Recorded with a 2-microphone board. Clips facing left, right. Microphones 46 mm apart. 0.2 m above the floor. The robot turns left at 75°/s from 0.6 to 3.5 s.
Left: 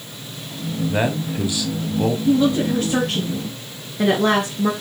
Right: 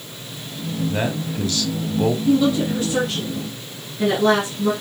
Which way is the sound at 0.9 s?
20° left (ahead or behind).